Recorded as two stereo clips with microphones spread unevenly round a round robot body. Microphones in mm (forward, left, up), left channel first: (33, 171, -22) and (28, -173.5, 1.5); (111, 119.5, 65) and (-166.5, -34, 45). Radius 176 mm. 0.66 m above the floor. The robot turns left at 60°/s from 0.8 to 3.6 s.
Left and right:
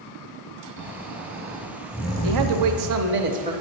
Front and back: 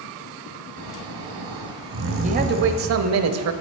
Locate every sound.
0.8 s snoring: 115° right, 1.2 m; by 3.0 s 115° left, 1.2 m
2.2 s a man speaking: 90° right, 0.7 m; by 3.5 s 165° right, 0.7 m